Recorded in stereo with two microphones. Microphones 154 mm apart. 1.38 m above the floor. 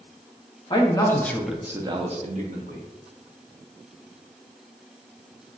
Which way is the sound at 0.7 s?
30° left (ahead or behind).